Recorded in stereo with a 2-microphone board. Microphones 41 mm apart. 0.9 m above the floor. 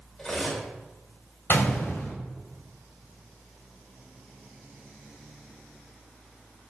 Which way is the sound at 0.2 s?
15° left (ahead or behind).